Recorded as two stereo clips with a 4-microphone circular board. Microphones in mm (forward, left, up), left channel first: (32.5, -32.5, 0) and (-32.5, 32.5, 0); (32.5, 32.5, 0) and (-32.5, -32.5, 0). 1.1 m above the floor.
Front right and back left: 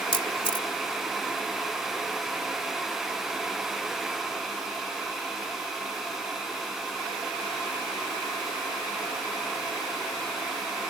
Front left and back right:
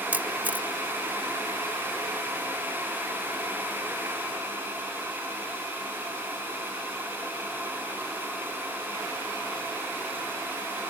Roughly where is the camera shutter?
Ahead right.